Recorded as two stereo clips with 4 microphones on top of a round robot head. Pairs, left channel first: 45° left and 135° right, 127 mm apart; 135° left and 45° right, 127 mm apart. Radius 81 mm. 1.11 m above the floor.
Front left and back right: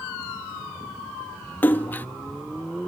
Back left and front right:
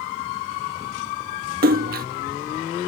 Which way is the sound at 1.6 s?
30° right.